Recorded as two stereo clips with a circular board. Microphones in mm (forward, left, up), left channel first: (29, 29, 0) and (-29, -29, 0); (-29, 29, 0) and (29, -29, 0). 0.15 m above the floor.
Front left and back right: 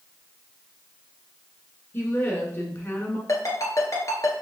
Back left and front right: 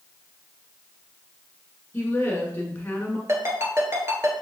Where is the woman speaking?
85° left, 1.5 m.